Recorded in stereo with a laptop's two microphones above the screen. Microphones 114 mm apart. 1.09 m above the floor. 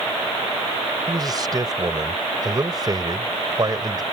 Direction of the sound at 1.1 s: 35° right (ahead or behind).